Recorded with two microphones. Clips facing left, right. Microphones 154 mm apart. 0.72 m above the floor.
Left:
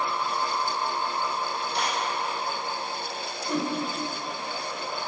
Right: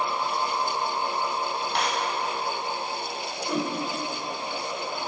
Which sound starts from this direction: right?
A clap, at 1.7 s.